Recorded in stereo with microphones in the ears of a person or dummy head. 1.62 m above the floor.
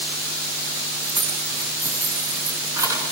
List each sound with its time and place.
1.0 s keys jangling: 10° right (ahead or behind), 8.5 m; by 3.0 s 25° right (ahead or behind), 9.5 m